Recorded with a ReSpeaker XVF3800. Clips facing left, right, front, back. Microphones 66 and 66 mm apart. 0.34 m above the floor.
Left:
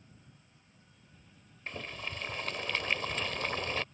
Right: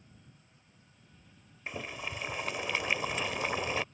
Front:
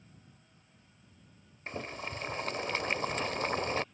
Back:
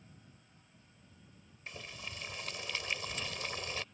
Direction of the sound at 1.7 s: 15° right.